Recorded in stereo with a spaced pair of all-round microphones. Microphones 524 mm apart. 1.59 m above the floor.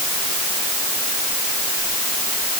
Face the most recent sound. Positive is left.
No sound to turn to.